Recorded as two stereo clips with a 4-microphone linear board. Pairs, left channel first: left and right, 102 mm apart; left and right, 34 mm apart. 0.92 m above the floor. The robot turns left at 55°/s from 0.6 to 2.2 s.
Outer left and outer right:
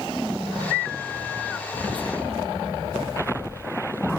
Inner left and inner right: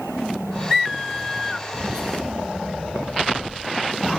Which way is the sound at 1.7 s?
45° right (ahead or behind).